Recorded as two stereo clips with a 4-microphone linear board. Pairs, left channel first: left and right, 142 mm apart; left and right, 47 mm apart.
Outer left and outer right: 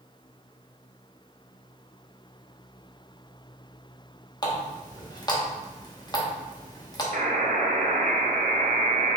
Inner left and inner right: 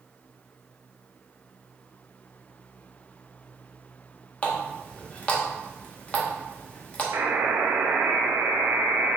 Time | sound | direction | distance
4.4 | a running tap | 30° left (ahead or behind) | 0.8 m
7.1 | a buzzer | 65° right (ahead or behind) | 0.5 m